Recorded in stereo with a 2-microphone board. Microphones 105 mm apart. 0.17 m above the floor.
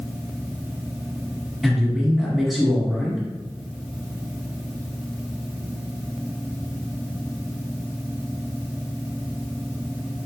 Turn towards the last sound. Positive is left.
turn(degrees=0)  # may be behind; listen again after turning